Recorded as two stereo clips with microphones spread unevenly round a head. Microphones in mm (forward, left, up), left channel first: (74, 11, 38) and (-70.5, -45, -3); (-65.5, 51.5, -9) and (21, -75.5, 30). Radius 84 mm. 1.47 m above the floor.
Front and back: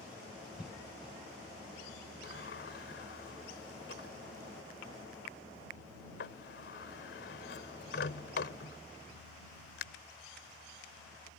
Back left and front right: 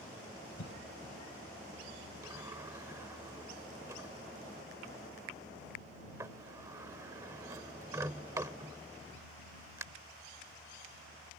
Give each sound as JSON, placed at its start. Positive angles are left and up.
{"t": 0.6, "sound": "a cough", "azimuth_deg": 115}
{"t": 2.2, "sound": "a sliding door", "azimuth_deg": 15}